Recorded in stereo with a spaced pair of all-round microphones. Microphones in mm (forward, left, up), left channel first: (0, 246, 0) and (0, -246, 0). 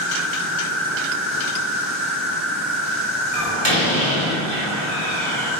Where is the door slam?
70° right (ahead or behind), 5 m.